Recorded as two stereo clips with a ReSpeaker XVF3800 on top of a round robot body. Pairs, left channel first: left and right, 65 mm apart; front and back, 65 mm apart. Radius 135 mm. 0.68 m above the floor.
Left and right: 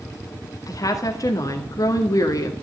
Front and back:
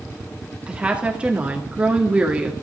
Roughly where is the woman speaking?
Left.